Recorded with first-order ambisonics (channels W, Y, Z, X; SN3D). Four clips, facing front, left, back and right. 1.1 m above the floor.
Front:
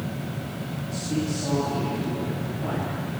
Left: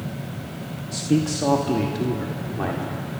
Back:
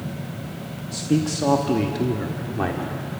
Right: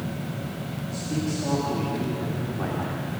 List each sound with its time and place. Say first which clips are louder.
0.9 s a man speaking: left 8 dB, back 6 dB; 120° left, 1.3 m; by 3.2 s 170° left, 3 m